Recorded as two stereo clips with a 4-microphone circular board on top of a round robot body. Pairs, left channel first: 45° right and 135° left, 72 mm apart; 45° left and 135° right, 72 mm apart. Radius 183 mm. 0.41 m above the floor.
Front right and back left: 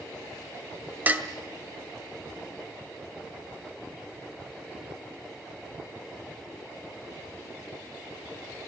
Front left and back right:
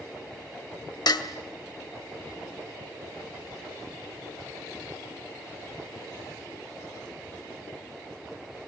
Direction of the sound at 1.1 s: 70° left.